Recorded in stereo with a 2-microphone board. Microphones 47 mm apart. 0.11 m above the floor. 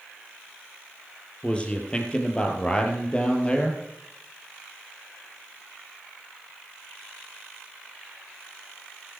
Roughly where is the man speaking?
Left.